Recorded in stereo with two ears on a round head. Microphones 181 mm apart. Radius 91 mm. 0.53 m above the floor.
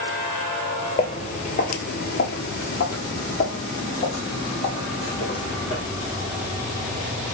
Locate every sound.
1.0 s footsteps: 25° left (ahead or behind), 0.9 m; by 5.8 s 30° left (ahead or behind), 2 m